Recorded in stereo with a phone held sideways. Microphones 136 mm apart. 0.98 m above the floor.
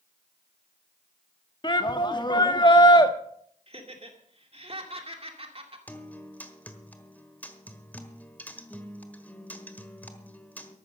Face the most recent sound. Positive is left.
turn(degrees=10)  # may be behind; listen again after turning